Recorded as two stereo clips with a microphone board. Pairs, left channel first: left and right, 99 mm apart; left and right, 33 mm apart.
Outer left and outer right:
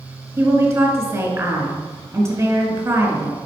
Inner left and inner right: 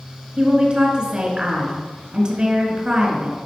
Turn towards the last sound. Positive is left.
turn(degrees=-30)  # may be behind; listen again after turning